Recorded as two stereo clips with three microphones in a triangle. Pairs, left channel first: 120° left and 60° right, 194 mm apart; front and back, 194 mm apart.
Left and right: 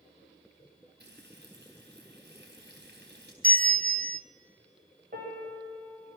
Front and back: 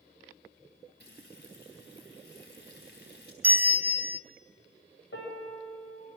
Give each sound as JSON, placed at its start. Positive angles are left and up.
{"t": 1.0, "sound": "frying", "azimuth_deg": -25, "distance_m": 4.5}
{"t": 3.4, "sound": "a bell", "azimuth_deg": -100, "distance_m": 0.7}
{"t": 5.1, "sound": "a piano", "azimuth_deg": -10, "distance_m": 8.0}